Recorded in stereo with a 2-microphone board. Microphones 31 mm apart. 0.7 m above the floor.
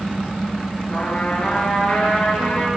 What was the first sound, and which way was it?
A trumpet, 40° left (ahead or behind).